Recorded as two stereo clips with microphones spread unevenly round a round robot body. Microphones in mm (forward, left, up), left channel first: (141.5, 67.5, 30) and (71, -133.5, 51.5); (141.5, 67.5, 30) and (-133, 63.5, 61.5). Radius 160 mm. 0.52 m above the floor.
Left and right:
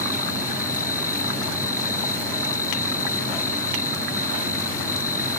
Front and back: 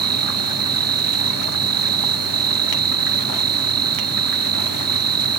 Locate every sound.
0.0 s an insect: 150° left